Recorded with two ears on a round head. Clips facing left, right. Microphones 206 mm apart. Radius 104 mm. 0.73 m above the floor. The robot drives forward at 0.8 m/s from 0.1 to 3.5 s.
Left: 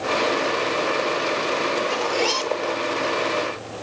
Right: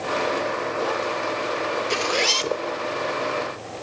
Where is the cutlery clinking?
No cutlery clinking in this recording.